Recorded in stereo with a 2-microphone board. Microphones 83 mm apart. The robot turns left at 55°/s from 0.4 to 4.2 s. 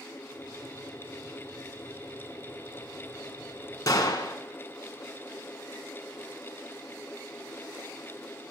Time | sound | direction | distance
3.9 | a gunshot | 45° left (ahead or behind) | 1.3 m